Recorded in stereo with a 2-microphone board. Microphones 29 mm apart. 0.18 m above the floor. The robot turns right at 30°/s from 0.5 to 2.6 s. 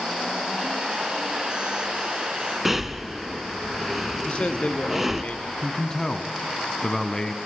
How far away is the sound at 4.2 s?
About 2.5 m.